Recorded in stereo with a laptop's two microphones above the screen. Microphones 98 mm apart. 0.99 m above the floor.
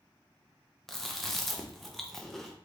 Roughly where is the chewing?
Centre.